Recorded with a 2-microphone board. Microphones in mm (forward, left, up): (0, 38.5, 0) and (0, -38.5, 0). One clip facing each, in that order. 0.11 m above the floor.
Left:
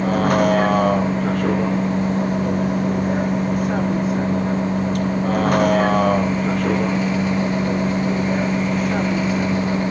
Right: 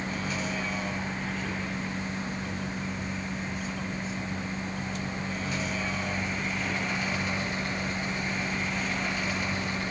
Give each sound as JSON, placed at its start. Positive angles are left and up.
{"t": 0.0, "sound": "a vehicle", "side_deg": 60}